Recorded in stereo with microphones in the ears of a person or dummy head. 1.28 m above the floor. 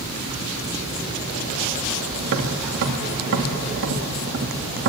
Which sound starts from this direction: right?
Tapping, at 2.2 s.